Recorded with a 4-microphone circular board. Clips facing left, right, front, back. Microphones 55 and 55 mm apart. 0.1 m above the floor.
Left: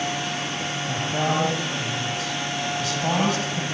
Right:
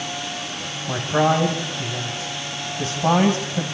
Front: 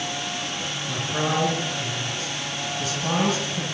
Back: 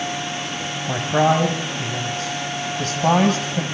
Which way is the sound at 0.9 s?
150° right.